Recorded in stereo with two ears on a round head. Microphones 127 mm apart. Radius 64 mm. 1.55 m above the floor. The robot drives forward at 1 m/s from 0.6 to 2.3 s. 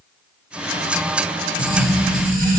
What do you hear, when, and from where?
1.6 s writing: 65° right (ahead or behind), 1.4 m; by 2.6 s 55° right (ahead or behind), 1.6 m